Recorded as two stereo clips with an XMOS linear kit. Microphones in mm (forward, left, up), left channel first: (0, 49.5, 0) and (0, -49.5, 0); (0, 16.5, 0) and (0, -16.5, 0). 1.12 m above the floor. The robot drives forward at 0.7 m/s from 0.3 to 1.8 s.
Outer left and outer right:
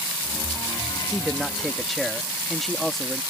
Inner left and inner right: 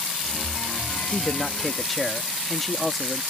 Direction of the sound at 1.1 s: 5° left (ahead or behind).